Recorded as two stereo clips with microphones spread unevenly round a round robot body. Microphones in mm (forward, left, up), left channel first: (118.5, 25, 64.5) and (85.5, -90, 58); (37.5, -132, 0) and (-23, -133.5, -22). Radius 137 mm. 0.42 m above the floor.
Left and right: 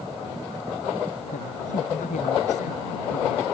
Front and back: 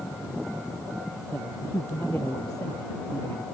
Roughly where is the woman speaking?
Left.